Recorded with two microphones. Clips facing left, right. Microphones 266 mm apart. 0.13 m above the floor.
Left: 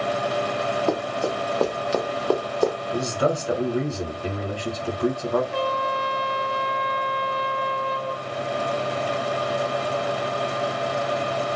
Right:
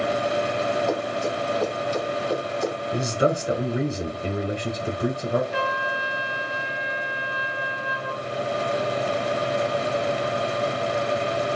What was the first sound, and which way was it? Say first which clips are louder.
Running footsteps: left 1 dB; 65° left (ahead or behind).